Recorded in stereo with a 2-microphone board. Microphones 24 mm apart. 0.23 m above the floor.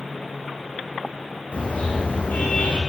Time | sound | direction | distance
1.5 | a car horn | 85° left | 9 m